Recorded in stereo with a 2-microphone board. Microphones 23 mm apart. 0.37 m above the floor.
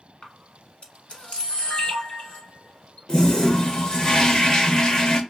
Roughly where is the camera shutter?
Left.